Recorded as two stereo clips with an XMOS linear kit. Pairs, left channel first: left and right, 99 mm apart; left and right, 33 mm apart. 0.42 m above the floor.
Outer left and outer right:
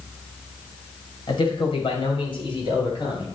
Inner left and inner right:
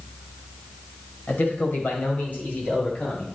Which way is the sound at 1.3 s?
60° left (ahead or behind).